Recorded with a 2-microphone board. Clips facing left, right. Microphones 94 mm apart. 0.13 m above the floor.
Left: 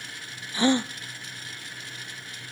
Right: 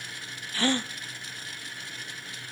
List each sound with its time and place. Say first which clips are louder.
0.5 s a gasp: left 5 dB; 20° left (ahead or behind), 0.6 m